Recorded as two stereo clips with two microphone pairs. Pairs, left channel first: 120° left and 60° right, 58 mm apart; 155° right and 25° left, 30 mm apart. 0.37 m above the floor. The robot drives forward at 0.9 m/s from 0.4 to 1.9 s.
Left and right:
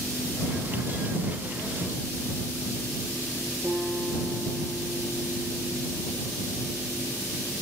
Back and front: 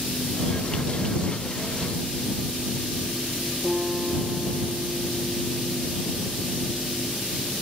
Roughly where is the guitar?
Ahead left.